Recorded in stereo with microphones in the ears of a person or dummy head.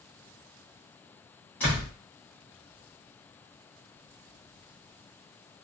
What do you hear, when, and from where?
1.6 s a door slam: 10° left (ahead or behind), 0.9 m